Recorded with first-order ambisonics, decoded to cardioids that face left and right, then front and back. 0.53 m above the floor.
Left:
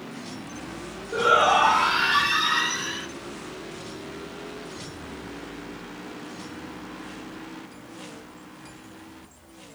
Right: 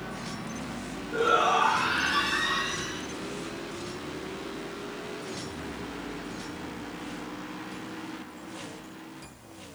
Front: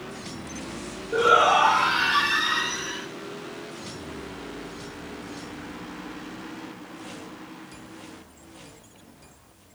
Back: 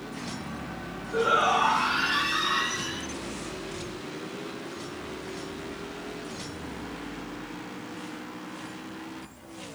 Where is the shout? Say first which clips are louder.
Left 5 dB, front 5 dB; 35° left, 1.7 m; by 3.1 s 80° left, 1.6 m.